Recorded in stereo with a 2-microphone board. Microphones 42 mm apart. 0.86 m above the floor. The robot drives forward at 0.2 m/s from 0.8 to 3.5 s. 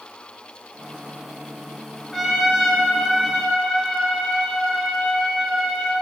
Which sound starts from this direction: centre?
A trumpet, at 2.1 s.